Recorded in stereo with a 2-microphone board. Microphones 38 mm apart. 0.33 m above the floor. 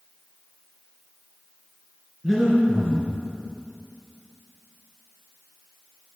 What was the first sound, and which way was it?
Breathing, 5° left (ahead or behind).